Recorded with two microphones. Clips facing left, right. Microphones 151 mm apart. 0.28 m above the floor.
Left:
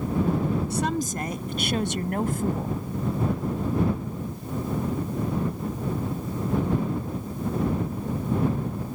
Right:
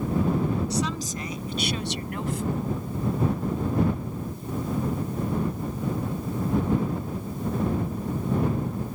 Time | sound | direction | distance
0.7 | a woman speaking | 55° left (ahead or behind) | ?